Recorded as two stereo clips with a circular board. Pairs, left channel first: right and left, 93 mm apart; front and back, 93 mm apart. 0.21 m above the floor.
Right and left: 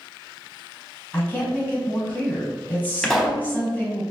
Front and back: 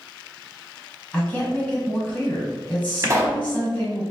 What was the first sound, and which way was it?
A woman speaking, 50° right.